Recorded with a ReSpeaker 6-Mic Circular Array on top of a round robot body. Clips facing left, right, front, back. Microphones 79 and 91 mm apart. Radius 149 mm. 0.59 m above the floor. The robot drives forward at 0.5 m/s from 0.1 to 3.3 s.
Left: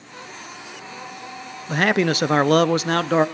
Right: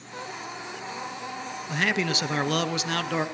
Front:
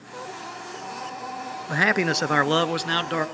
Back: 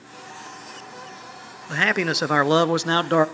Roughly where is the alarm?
No alarm in this recording.